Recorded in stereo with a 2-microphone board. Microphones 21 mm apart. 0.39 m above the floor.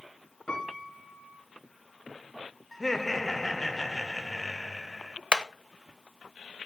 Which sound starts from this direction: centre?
Laughter, at 2.7 s.